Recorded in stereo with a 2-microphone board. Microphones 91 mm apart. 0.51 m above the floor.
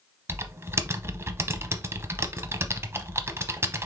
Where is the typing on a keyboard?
30° right (ahead or behind), 0.6 m.